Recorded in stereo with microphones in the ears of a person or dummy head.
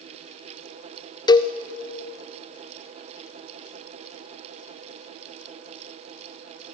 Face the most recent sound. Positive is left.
turn(degrees=15)  # may be behind; listen again after turning